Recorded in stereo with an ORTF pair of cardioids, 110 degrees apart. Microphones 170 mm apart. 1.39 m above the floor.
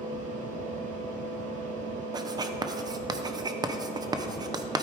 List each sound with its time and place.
0.0 s a fan: 50° right, 3 m
2.1 s writing: 25° right, 0.8 m